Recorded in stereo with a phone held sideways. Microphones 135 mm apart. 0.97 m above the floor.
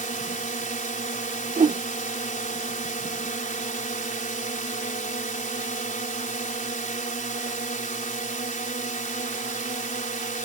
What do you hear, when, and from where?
0.0 s a drone: 70° left (ahead or behind)
1.6 s a whoosh: 60° right (ahead or behind)